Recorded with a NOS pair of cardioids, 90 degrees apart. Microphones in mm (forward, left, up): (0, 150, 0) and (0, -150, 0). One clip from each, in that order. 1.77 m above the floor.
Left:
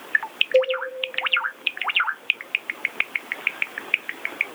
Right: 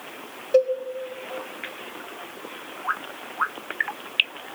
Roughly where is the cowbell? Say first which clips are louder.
Right 1 dB; ahead.